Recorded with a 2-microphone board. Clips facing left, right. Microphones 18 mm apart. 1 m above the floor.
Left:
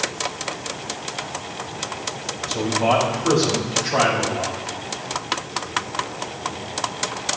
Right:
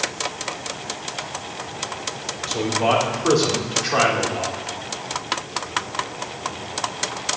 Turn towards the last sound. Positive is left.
turn(degrees=-65)  # may be behind; listen again after turning